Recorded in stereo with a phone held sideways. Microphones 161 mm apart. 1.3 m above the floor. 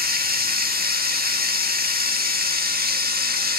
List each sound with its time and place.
0.0 s running water: 70° right (ahead or behind), 1.6 m